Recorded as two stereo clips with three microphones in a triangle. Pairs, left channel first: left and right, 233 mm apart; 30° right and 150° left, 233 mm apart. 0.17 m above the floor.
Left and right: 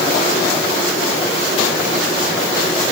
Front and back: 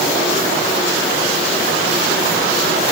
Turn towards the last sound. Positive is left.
No sound to turn to.